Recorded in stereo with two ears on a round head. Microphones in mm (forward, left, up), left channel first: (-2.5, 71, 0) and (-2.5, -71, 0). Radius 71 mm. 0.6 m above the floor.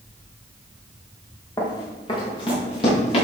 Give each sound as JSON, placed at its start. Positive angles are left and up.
{"t": 1.6, "sound": "running footsteps", "side_deg": 25, "distance_m": 3.0}